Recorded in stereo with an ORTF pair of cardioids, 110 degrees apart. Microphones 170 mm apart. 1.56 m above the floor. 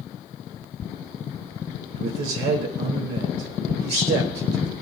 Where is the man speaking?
65° right, 3.5 m.